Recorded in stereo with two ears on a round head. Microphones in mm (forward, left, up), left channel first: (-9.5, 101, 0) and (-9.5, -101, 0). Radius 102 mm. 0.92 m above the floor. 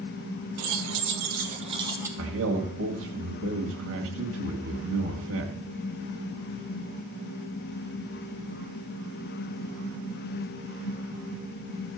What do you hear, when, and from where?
0.6 s keys jangling: 75° right (ahead or behind), 1.6 m; by 2.1 s 10° right (ahead or behind), 1.6 m
2.2 s a man speaking: 60° right (ahead or behind), 2 m